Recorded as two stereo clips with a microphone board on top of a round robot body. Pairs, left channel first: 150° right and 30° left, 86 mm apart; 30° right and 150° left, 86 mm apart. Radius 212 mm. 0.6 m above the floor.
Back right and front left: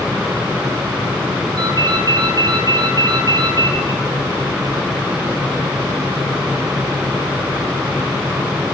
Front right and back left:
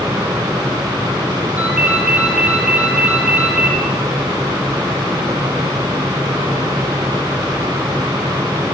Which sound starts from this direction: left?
A ringtone, at 1.6 s.